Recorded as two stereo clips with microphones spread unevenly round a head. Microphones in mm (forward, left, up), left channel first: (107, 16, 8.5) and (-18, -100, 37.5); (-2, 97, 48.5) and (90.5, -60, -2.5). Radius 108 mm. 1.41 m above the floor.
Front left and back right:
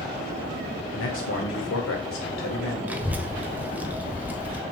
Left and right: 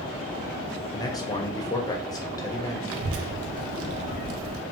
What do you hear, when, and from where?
0.9 s a man speaking: 55° left, 0.7 m
2.9 s a child speaking: 55° right, 0.6 m